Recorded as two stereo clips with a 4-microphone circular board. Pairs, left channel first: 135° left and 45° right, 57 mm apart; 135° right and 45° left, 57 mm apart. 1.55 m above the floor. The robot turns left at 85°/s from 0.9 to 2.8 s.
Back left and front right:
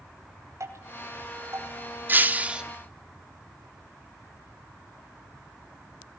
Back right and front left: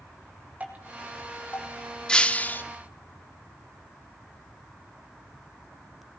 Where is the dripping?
15° right, 5 m; by 1.7 s 85° right, 5 m.